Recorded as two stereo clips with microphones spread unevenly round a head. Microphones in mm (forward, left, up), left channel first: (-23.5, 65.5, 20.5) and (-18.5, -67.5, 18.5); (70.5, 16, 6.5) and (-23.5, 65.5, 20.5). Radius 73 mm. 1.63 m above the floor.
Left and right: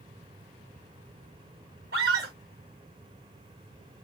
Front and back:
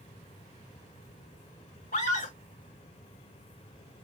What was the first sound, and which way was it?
A scream, 60° right.